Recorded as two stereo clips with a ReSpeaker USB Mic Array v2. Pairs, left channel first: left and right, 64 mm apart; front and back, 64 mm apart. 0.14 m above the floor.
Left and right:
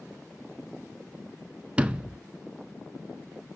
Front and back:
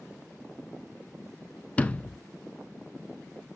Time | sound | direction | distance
1.8 | a sliding door | 40° right | 0.6 m